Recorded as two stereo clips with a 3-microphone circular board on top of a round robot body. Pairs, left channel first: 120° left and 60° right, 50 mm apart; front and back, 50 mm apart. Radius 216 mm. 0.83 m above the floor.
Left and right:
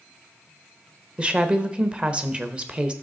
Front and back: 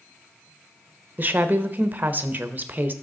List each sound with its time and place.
1.2 s a woman speaking: 125° right, 1.0 m